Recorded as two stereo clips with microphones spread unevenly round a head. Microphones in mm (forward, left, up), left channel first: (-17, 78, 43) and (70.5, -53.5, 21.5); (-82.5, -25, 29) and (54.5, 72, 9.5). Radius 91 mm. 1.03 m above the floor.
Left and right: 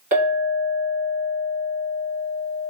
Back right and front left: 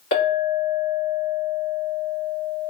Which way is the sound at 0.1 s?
105° right.